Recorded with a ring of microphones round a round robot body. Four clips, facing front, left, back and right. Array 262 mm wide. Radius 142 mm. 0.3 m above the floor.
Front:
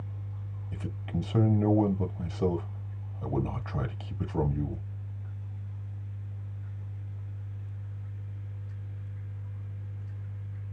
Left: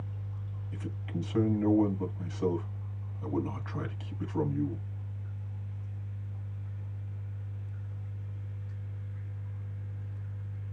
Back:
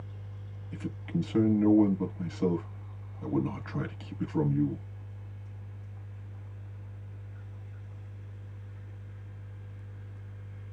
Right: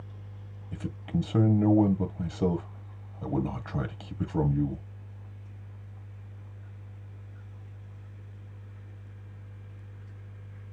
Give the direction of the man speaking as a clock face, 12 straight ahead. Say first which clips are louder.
Right 6 dB, back 2 dB; 2 o'clock.